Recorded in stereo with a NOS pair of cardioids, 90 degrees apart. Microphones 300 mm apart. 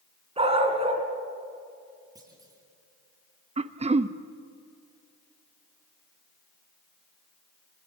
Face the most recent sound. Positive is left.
turn(degrees=-20)